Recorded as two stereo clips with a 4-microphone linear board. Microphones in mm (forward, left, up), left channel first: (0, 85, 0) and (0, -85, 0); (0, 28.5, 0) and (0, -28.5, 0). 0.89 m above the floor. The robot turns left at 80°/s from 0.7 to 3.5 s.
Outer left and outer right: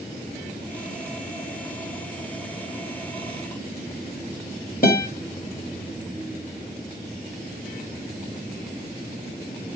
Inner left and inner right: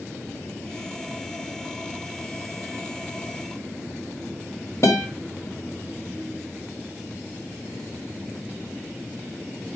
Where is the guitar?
60° left (ahead or behind), 1.0 m.